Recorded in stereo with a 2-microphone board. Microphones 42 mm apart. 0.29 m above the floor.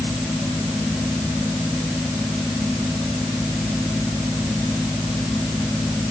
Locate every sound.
Only background noise.